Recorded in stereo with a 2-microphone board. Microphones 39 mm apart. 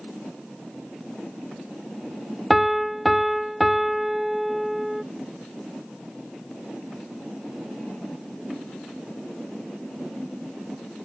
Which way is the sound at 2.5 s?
Centre (ahead or behind).